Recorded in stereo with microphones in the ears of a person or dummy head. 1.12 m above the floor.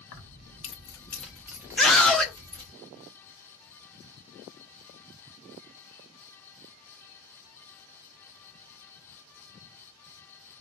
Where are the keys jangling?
60° left (ahead or behind), 0.8 m; by 2.7 s 30° right (ahead or behind), 1.4 m.